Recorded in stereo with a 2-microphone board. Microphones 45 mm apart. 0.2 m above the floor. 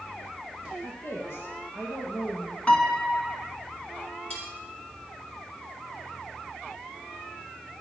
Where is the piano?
30° left (ahead or behind), 2 m.